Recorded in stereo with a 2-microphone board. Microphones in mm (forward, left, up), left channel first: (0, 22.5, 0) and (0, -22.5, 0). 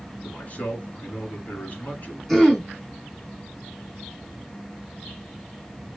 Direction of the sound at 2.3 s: 5° left (ahead or behind).